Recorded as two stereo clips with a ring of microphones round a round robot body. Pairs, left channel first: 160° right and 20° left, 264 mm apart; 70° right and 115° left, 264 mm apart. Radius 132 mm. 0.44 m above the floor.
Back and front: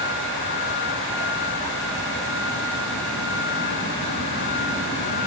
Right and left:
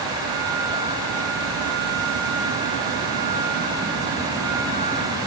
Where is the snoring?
I don't hear snoring.